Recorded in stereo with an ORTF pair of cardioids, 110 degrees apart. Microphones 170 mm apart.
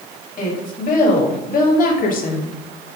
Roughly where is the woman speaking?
Ahead left.